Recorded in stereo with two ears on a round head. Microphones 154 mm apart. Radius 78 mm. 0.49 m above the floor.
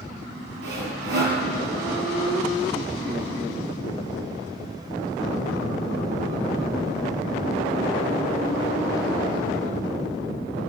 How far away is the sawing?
About 6.5 m.